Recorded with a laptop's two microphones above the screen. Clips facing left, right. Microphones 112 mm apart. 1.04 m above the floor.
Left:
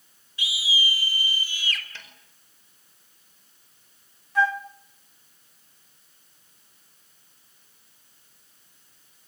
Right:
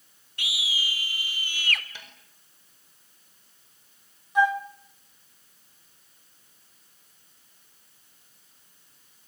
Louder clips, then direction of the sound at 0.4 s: Left 4 dB; 70° right (ahead or behind).